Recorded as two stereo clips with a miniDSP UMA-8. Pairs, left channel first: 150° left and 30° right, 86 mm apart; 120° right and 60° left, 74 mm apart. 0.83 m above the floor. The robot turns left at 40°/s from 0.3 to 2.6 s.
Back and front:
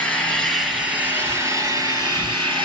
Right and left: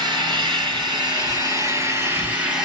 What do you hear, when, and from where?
0.0 s an engine running: 70° left, 6.5 m; by 2.7 s 25° right, 6.5 m